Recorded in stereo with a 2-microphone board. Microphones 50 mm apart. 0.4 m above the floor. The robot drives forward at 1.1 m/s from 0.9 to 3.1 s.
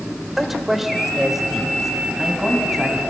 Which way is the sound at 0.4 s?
5° right (ahead or behind).